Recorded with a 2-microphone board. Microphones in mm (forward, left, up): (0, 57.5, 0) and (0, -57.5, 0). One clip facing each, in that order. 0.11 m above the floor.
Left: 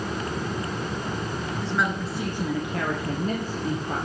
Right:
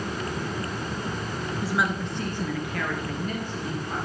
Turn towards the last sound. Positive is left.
turn(degrees=50)  # may be behind; listen again after turning